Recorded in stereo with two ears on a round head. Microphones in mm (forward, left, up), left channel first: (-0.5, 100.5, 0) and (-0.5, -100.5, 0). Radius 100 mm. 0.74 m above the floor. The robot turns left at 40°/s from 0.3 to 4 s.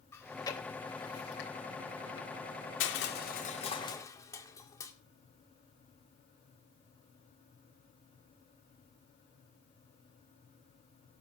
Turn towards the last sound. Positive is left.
turn(degrees=15)  # may be behind; listen again after turning